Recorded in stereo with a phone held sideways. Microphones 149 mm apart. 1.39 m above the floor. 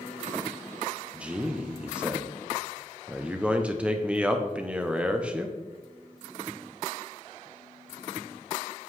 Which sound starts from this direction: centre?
A man speaking, at 1.1 s.